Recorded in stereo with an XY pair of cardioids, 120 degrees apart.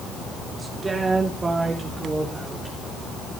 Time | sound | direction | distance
0.6 | a woman speaking | 30° right | 3 m